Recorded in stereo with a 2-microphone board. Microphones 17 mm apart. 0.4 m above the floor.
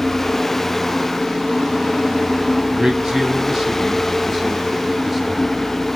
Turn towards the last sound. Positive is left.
turn(degrees=-5)  # may be behind; listen again after turning